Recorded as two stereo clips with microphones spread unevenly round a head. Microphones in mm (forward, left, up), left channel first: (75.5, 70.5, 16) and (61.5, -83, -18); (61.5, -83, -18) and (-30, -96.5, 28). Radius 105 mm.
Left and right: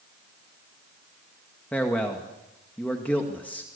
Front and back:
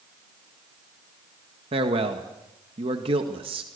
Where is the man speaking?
165° left, 1.9 m.